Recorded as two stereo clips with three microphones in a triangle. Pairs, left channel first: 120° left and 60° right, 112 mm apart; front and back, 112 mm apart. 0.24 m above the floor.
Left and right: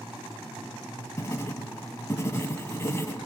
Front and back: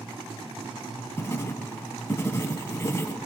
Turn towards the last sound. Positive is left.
turn(degrees=60)